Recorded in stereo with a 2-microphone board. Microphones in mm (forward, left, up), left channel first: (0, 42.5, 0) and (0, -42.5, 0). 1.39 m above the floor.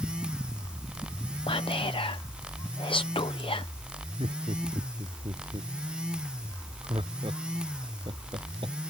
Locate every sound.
1.5 s whispering: 80° left
4.2 s laughter: 75° right (ahead or behind)